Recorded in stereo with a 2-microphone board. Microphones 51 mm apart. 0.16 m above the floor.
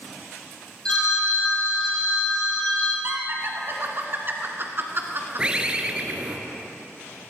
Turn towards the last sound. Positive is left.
turn(degrees=-20)  # may be behind; listen again after turning